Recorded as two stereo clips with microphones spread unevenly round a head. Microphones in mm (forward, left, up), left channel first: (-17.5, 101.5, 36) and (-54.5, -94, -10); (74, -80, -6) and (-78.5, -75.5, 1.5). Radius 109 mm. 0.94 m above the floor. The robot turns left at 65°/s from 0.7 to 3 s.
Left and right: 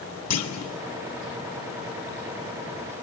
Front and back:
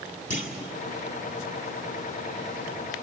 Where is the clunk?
55° left, 1.9 m.